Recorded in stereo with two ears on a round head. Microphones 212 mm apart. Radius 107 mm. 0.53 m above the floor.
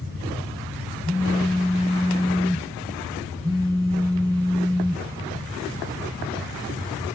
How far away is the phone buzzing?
About 0.6 m.